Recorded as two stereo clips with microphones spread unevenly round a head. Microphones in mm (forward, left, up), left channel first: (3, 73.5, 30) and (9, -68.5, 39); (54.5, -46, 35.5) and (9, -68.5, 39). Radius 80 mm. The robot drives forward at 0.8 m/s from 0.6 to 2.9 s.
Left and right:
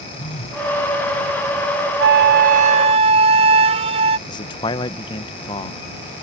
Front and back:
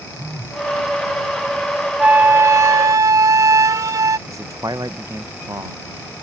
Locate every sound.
0.2 s a phone buzzing: 140° left
2.0 s a flute: 90° right; by 4.2 s 140° right
4.3 s a man speaking: 155° left